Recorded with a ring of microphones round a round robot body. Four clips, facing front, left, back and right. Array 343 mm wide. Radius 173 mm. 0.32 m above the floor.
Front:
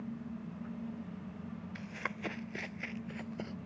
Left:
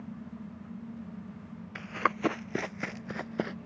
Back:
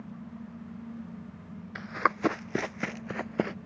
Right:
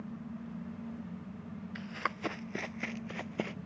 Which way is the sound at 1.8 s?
145° left.